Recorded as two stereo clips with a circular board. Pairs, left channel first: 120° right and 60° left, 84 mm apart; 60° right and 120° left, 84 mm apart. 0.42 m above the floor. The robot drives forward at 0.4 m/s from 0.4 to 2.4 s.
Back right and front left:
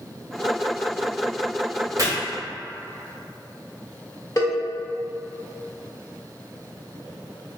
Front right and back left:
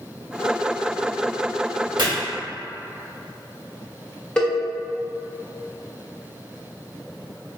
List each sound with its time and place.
2.0 s chopping: 100° left, 0.8 m; by 2.1 s 105° left, 0.8 m
4.4 s a cowbell: 135° right, 0.9 m